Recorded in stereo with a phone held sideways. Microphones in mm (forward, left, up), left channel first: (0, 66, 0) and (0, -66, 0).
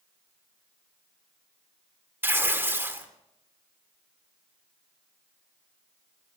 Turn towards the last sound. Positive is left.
turn(degrees=-15)  # may be behind; listen again after turning